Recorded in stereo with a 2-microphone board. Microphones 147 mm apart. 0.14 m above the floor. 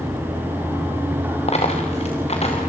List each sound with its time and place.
1.5 s a dropped coin: 45° left (ahead or behind), 5 m